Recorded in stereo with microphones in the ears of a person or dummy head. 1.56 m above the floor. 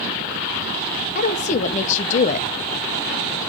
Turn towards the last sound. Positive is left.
turn(degrees=35)  # may be behind; listen again after turning